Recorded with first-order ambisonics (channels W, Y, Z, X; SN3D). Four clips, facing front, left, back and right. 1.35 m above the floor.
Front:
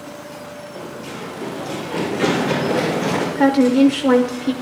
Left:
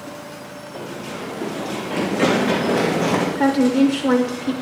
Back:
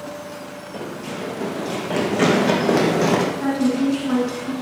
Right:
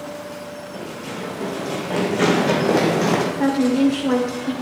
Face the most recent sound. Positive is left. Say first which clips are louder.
# left 2 dB, front 6 dB
turn(degrees=15)